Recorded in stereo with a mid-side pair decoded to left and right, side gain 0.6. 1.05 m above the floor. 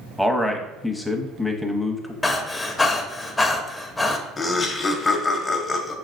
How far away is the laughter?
About 0.9 m.